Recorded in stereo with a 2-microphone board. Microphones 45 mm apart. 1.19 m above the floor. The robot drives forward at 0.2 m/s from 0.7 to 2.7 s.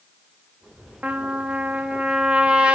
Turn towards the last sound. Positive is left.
turn(degrees=-25)  # may be behind; listen again after turning